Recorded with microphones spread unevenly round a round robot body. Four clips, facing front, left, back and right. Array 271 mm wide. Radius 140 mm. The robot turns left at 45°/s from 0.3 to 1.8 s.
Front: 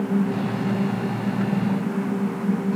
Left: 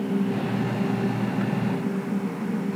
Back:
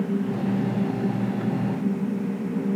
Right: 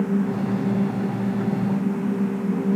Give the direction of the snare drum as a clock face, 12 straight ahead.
No snare drum in this recording.